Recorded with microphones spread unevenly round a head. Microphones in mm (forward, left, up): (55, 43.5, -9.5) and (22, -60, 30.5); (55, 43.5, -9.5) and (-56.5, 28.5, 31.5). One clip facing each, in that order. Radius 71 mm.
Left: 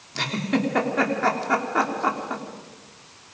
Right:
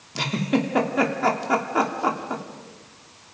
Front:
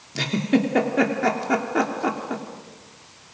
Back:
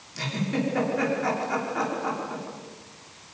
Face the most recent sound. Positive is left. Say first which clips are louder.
# right 1 dB, front 7 dB
turn(degrees=-35)